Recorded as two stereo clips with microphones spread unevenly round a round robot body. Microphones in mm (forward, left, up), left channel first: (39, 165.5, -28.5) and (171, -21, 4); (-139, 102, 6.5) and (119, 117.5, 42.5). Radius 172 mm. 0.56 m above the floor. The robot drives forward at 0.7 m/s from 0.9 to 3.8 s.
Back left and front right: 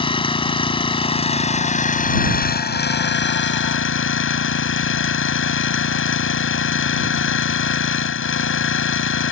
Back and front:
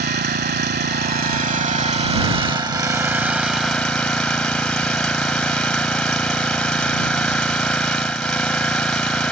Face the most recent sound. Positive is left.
turn(degrees=95)